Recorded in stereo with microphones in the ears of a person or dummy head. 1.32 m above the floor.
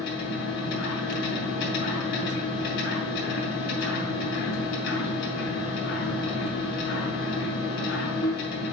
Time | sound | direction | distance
0.0 | a machine running | 55° left (ahead or behind) | 3 m